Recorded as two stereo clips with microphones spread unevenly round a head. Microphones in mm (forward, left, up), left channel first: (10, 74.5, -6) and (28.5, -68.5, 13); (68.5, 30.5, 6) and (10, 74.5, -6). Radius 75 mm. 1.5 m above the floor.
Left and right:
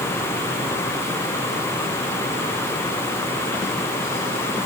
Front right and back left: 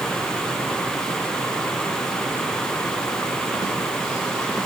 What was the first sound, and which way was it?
Only background noise.